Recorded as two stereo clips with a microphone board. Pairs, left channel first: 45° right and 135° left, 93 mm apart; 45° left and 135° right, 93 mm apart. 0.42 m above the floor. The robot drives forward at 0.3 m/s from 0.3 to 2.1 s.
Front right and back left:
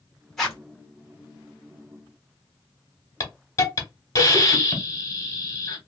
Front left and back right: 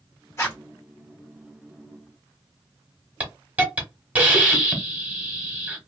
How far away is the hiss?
About 1.0 m.